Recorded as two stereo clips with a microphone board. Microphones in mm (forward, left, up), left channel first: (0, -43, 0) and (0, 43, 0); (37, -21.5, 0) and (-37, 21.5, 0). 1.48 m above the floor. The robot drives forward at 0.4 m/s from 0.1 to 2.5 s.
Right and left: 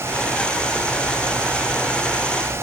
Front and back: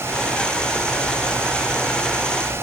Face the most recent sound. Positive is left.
No sound to turn to.